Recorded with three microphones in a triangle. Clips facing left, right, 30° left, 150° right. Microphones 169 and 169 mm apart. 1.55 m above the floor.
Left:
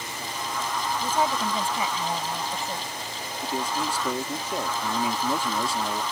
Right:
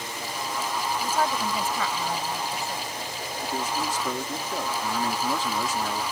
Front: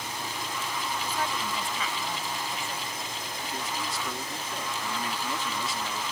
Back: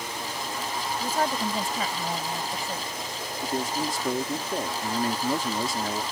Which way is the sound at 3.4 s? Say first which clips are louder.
Left 1 dB, back 8 dB; 170° left.